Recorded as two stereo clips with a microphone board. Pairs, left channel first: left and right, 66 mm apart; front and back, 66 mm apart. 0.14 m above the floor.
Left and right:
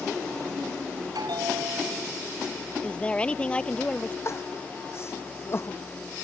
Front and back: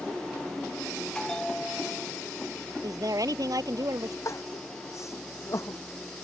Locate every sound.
1.1 s a bell: 80° right
2.8 s a woman speaking: 160° left
4.2 s crying: 40° left